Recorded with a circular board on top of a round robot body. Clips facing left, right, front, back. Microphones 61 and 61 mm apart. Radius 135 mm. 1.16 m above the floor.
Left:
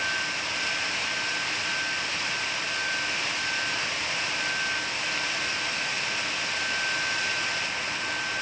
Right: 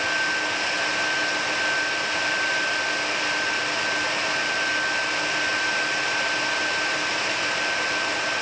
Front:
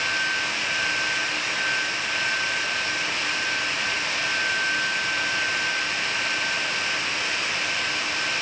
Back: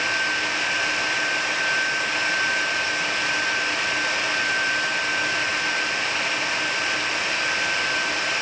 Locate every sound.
Only background noise.